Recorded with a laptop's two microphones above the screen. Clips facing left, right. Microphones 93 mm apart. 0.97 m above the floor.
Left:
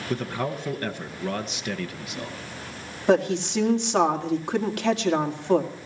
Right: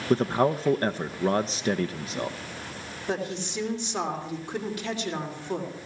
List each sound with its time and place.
0.1 s a man speaking: 35° right (ahead or behind), 0.8 m
3.1 s a woman speaking: 70° left (ahead or behind), 1.9 m